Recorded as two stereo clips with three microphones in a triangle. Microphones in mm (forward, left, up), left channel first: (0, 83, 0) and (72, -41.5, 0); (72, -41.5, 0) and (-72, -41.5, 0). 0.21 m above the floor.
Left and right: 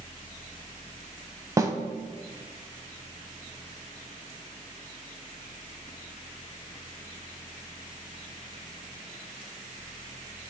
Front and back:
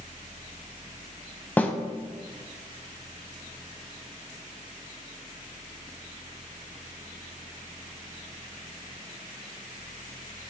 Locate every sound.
1.6 s a snare drum: 55° right, 0.6 m